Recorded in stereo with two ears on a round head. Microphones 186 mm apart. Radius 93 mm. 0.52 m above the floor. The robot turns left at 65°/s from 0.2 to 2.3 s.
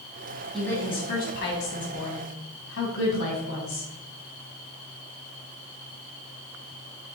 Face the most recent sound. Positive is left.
turn(degrees=65)